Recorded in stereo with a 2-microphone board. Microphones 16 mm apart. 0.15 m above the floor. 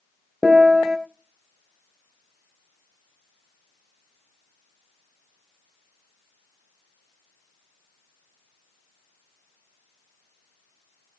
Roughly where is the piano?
Right.